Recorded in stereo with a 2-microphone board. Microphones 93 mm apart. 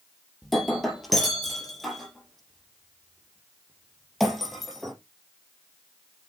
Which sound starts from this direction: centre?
Breaking glass, at 0.4 s.